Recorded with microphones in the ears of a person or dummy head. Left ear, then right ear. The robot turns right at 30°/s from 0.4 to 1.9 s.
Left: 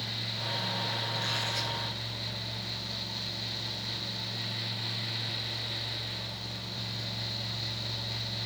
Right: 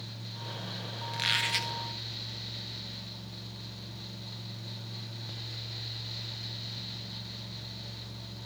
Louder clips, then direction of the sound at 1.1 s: Right 2 dB; 35° right (ahead or behind).